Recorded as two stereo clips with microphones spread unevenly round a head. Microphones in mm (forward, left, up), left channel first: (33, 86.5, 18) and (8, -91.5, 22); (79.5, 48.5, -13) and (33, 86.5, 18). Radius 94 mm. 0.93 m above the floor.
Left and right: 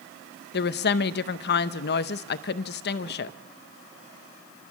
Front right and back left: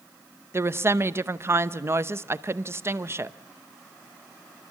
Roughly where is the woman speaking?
Left.